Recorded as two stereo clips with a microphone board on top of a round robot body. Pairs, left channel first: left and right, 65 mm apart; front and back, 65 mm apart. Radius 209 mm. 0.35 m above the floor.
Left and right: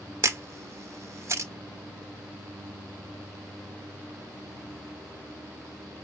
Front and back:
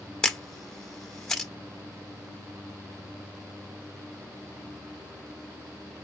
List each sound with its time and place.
0.2 s a camera shutter: 80° right, 1.3 m